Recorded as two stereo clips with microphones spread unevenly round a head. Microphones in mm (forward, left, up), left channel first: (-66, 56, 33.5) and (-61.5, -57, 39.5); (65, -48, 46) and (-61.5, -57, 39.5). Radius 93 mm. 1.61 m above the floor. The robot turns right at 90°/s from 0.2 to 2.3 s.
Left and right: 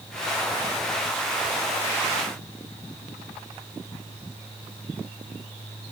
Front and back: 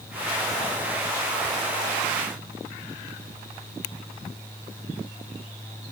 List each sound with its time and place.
Only background noise.